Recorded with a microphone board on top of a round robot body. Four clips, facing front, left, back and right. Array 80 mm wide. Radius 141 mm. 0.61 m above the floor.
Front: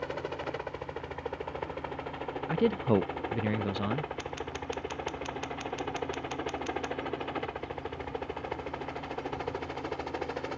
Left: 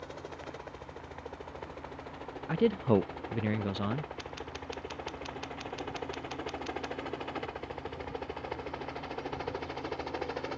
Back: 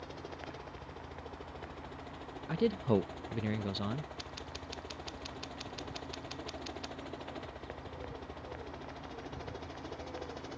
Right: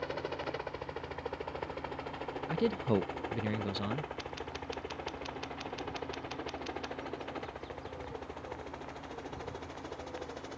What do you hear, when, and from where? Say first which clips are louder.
0.0 s a helicopter: right 6 dB, front 10 dB; 25° right; by 10.6 s 35° left
2.5 s a man speaking: left 4 dB, front 4 dB; 40° left
4.2 s scissors: even, front 9 dB; 5° left